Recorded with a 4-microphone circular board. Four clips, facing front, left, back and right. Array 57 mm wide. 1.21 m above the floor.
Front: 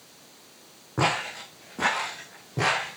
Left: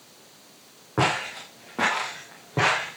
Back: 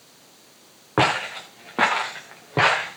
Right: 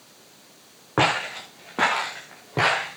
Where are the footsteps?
155° right, 5.5 m; by 3.0 s 175° right, 5 m.